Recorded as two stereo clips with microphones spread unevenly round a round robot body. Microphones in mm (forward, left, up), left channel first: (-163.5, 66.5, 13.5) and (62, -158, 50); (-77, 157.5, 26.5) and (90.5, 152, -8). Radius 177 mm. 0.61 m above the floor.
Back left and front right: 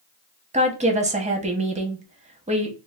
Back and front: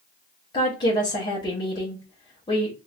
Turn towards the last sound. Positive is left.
turn(degrees=-110)